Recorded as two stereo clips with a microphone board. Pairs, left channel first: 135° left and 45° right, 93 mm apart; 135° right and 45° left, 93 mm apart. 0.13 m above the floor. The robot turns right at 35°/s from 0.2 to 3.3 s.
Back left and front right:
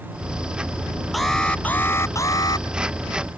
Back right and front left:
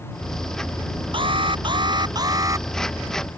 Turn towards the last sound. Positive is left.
turn(degrees=120)